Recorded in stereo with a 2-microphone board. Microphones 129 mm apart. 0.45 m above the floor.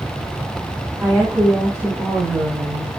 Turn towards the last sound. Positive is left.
turn(degrees=-20)  # may be behind; listen again after turning